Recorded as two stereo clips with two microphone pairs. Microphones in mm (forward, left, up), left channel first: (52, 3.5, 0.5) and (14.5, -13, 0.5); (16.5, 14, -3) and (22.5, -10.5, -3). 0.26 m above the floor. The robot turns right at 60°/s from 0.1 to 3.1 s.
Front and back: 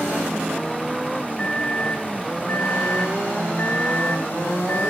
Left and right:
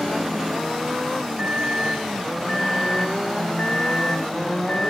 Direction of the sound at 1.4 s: 40° right.